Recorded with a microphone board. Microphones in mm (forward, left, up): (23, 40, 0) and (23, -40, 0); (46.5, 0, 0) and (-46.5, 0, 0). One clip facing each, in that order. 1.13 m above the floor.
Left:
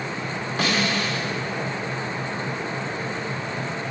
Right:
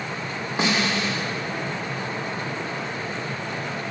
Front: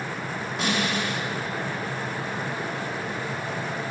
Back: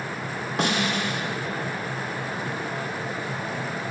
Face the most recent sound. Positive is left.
turn(degrees=-160)